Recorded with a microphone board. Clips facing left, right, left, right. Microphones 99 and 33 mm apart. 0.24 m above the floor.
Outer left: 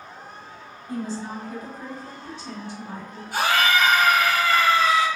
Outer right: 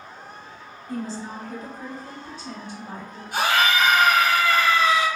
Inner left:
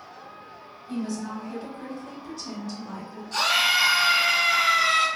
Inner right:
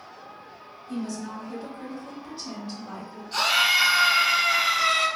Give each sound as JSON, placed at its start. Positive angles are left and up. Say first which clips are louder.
{"t": 0.9, "sound": "a woman speaking", "louder": "outer left 1 dB, inner left 2 dB", "side_deg": 20, "distance_m": 1.3}
{"t": 3.3, "sound": "a scream", "louder": "even, inner right 1 dB", "side_deg": -20, "distance_m": 1.3}